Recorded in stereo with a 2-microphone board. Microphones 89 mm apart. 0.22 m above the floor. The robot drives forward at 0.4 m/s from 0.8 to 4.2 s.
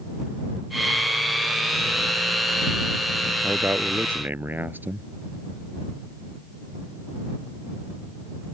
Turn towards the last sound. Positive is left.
turn(degrees=-20)  # may be behind; listen again after turning